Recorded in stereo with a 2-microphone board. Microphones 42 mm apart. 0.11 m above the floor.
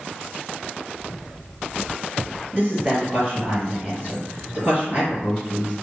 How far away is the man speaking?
About 1.9 m.